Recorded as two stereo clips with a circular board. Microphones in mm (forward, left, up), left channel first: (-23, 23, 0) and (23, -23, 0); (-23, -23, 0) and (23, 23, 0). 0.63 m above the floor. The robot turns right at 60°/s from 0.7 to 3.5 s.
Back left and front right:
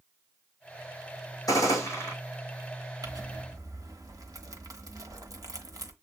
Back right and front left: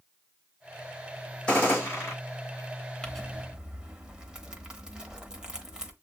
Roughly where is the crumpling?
Ahead right.